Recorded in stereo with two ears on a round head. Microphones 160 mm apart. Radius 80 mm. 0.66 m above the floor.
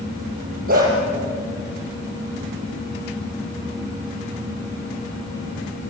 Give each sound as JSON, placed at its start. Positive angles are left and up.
{"t": 0.7, "sound": "a dog barking", "side_deg": -50, "distance_m": 7.5}